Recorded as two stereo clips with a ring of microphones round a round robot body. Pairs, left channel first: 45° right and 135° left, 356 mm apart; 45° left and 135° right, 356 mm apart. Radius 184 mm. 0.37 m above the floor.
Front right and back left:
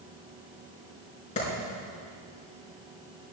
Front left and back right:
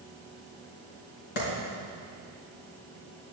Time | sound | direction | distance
1.4 | a clap | 25° left | 4.5 m